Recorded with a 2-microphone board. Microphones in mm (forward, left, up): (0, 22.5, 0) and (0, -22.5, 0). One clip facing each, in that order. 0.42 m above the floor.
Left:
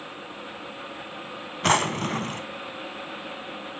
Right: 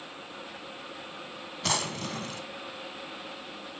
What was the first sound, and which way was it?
A drawer, 45° left (ahead or behind).